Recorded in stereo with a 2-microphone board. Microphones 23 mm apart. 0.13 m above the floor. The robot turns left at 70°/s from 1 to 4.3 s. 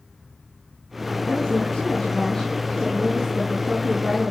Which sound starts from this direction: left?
A woman speaking, at 1.3 s.